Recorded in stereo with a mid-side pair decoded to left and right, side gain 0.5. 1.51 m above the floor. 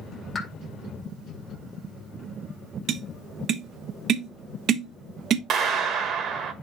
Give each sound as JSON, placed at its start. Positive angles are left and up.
{"t": 0.3, "sound": "a pop", "azimuth_deg": 35, "distance_m": 1.8}
{"t": 2.9, "sound": "tapping", "azimuth_deg": -60, "distance_m": 0.8}
{"t": 5.5, "sound": "a clap", "azimuth_deg": -60, "distance_m": 1.4}